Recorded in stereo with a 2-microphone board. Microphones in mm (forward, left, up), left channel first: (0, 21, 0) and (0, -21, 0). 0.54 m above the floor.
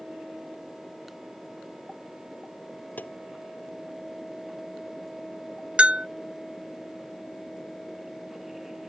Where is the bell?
35° right (ahead or behind).